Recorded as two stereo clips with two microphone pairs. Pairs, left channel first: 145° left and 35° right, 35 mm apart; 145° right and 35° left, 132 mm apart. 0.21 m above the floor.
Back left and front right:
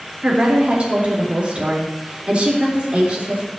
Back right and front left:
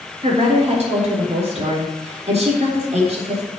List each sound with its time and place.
0.2 s a woman speaking: 15° left, 3.5 m